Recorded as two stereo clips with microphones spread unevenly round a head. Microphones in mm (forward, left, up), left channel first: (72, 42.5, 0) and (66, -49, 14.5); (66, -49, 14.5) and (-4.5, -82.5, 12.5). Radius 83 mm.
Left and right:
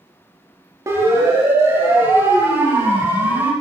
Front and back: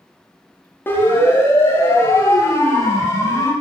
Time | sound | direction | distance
0.9 | a siren | 35° right | 5.5 m